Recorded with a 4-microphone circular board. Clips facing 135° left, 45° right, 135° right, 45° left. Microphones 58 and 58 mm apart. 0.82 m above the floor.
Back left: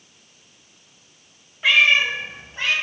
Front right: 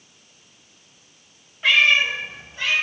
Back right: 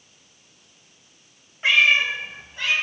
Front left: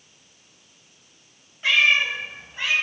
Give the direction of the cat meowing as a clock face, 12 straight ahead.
5 o'clock.